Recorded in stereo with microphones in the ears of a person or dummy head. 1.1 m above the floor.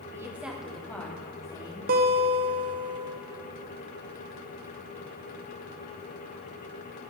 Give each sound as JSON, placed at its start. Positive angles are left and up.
{"t": 0.1, "sound": "a woman speaking", "side_deg": -15, "distance_m": 2.0}
{"t": 1.9, "sound": "a guitar", "side_deg": -45, "distance_m": 0.9}